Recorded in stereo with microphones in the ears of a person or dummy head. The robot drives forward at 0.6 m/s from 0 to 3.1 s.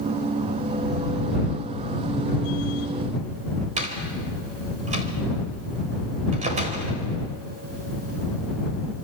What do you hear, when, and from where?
3.8 s a door slam: 40° right (ahead or behind), 3 m